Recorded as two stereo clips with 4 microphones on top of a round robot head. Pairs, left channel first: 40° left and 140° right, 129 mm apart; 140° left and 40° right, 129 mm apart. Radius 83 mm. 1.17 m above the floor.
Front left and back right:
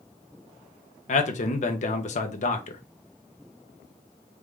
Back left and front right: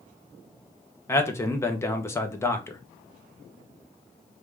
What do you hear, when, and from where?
1.1 s a man speaking: 70° left, 0.9 m